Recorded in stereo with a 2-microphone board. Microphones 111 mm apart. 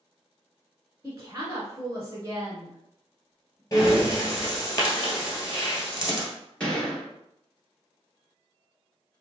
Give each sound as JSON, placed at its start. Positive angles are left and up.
{"t": 1.0, "sound": "a woman speaking", "side_deg": -30, "distance_m": 1.3}
{"t": 3.7, "sound": "breathing", "side_deg": 30, "distance_m": 1.4}
{"t": 6.6, "sound": "a gunshot", "side_deg": 10, "distance_m": 2.0}